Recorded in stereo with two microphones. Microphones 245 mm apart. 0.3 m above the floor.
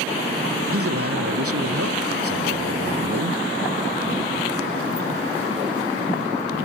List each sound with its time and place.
0.7 s a man speaking: 75° right (ahead or behind)